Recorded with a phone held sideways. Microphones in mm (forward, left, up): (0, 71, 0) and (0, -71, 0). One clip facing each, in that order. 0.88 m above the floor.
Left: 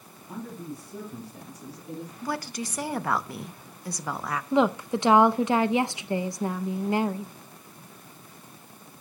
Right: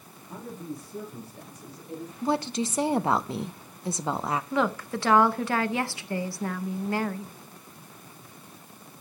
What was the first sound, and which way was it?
A man speaking, 80° left.